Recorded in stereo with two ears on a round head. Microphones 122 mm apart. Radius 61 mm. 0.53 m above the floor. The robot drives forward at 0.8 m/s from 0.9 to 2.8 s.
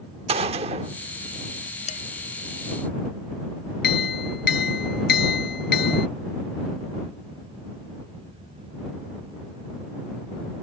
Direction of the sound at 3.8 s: 85° left.